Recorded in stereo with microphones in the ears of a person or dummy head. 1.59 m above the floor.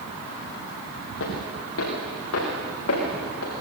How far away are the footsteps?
About 6 m.